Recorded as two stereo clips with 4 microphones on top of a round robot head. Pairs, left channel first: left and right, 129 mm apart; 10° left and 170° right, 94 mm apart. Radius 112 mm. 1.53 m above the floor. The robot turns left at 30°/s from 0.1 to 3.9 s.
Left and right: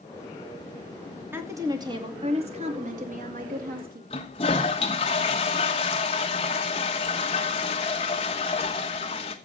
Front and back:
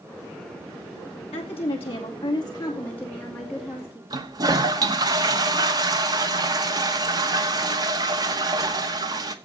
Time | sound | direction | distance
1.3 | a woman speaking | 15° right | 2.5 m
4.1 | a toilet flushing | 145° left | 1.1 m